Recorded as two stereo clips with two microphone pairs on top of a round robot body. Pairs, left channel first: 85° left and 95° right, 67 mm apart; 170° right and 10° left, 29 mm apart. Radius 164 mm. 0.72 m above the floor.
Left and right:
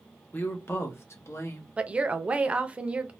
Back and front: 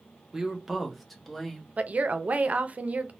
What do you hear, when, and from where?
0.3 s a woman speaking: 75° left, 0.9 m; by 1.7 s 120° left, 1.3 m
1.8 s a woman speaking: 25° right, 0.6 m